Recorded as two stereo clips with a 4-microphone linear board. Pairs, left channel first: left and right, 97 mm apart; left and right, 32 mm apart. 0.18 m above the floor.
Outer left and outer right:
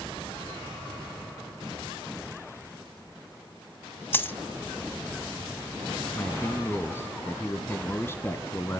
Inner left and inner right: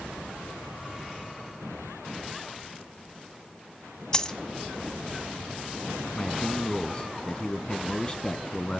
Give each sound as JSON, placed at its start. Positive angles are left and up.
{"t": 4.1, "sound": "a dropped coin", "side_deg": 20, "distance_m": 0.6}
{"t": 6.2, "sound": "a man speaking", "side_deg": 25, "distance_m": 1.4}